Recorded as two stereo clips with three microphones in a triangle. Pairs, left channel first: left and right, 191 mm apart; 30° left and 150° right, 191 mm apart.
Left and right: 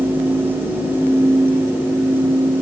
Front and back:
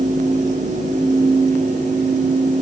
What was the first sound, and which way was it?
Only background noise.